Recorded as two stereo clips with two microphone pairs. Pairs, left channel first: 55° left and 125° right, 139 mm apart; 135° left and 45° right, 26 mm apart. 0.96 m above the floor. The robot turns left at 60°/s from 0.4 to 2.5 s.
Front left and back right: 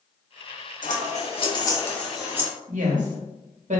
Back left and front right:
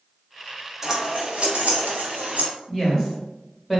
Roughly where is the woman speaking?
Behind right.